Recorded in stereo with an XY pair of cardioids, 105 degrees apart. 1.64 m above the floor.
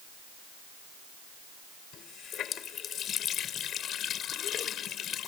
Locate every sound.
1.9 s a running tap: 65° left